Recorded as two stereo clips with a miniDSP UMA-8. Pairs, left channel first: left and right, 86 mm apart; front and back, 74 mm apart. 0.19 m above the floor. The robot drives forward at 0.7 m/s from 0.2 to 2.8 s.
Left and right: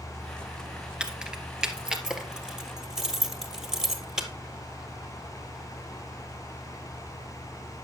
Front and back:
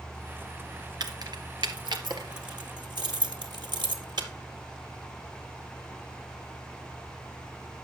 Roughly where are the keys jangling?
Behind.